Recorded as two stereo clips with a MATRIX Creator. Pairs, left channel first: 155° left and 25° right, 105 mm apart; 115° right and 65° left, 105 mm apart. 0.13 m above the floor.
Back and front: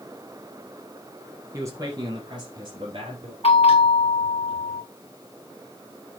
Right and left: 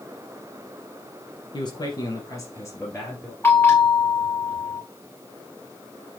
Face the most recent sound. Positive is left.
turn(degrees=180)